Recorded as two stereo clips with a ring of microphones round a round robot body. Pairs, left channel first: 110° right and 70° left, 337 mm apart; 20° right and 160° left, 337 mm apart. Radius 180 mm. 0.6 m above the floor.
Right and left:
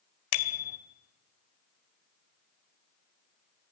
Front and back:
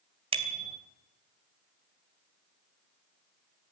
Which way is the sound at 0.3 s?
130° right.